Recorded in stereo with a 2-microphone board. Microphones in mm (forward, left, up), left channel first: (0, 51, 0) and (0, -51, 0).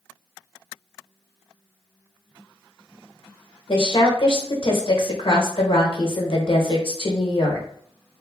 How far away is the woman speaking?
About 0.8 m.